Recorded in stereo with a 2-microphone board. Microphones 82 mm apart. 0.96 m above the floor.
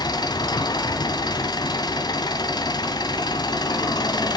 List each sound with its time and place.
0.0 s an engine running: 65° left (ahead or behind), 2 m